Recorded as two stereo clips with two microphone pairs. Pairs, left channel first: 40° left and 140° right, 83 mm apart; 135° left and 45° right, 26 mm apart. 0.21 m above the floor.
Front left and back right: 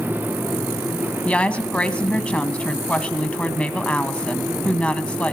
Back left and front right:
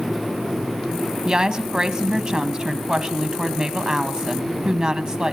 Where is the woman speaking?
25° right, 1.4 m.